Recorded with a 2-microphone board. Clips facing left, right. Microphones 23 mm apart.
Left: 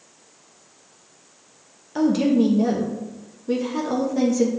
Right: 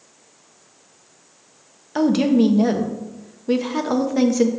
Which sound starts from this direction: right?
A woman speaking, at 1.9 s.